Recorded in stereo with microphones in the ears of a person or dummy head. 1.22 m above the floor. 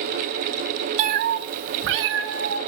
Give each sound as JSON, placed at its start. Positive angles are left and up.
{"t": 1.0, "sound": "a cat meowing", "side_deg": -40, "distance_m": 0.6}